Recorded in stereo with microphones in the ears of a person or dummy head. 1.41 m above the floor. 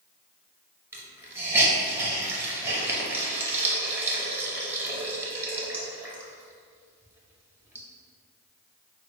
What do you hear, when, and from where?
0.9 s a hiss: 15° right (ahead or behind), 0.6 m